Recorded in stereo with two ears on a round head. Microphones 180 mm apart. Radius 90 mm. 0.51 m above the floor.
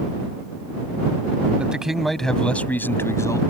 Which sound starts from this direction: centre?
A man speaking, at 1.6 s.